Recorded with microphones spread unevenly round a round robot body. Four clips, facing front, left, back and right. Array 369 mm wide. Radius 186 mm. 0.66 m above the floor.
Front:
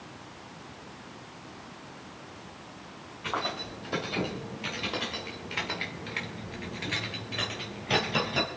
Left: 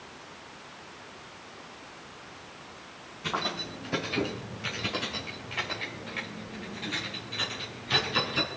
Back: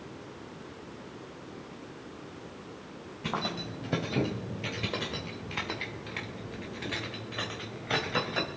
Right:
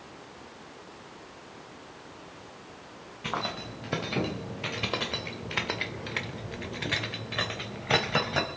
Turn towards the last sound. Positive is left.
turn(degrees=-55)